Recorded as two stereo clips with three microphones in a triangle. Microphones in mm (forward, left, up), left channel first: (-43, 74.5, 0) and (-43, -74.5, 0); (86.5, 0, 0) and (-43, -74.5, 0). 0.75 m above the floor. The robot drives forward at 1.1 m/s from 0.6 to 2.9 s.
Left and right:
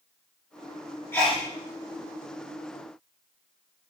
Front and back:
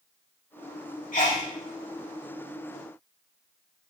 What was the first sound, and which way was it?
A sneeze, 20° left.